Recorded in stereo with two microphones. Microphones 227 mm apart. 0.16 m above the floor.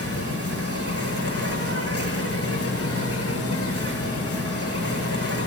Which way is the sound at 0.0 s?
80° left.